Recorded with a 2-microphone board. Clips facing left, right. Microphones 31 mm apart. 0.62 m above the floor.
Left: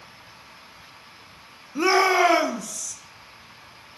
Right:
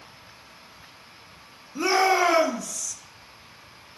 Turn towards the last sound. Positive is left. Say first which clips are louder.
# left 2 dB
turn(degrees=25)  # may be behind; listen again after turning